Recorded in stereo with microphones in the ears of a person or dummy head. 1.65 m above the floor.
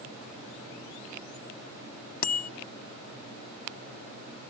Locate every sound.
2.2 s a bicycle bell: 45° left (ahead or behind)